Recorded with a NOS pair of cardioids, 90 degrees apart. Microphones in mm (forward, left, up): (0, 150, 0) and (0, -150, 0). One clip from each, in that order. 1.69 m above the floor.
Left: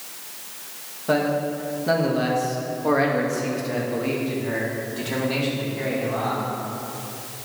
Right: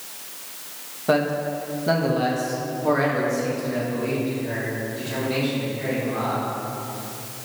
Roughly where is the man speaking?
Ahead right.